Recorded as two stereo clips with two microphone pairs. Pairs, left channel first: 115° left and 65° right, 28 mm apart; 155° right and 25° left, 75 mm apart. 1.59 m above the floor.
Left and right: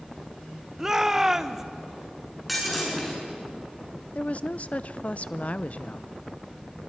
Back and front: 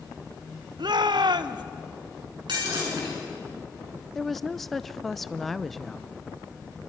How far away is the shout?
About 1.0 m.